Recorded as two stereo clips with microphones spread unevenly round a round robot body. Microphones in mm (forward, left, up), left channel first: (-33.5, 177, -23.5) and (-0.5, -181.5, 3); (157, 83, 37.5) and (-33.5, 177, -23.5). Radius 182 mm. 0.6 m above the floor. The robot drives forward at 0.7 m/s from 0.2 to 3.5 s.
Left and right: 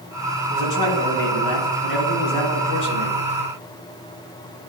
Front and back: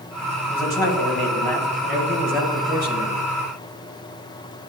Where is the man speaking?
55° left, 3 m; by 3.2 s 95° left, 2.5 m.